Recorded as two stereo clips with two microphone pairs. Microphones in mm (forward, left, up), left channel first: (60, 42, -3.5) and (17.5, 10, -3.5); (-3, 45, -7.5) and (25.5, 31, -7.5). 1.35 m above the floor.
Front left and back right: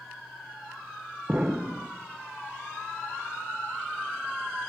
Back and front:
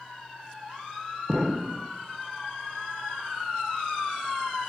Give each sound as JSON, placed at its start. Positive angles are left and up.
{"t": 1.3, "sound": "an explosion", "azimuth_deg": -90, "distance_m": 0.5}